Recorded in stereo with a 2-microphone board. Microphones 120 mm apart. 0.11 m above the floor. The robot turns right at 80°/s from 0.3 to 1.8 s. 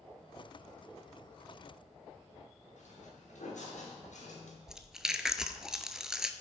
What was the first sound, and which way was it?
Footsteps, 85° left.